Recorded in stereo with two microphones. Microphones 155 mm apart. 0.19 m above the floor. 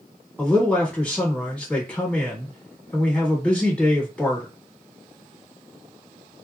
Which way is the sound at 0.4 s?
5° left (ahead or behind).